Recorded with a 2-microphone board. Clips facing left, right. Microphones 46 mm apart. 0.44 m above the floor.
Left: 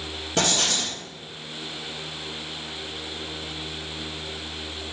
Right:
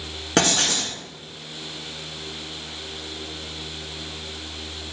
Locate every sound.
0.4 s writing: 85° right, 1.3 m